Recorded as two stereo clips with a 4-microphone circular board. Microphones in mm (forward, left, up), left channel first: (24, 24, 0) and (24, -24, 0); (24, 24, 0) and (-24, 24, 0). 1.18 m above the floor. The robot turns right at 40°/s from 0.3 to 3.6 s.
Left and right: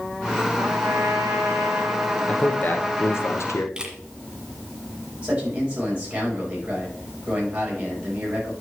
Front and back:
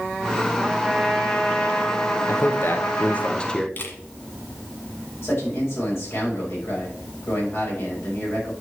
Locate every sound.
0.6 s a trumpet: 105° right, 1.9 m; by 3.3 s 5° left, 1.9 m
2.3 s a man speaking: 25° left, 0.9 m; by 3.7 s 75° left, 0.9 m
3.8 s a camera shutter: 20° right, 1.7 m
5.2 s a man speaking: 25° right, 5 m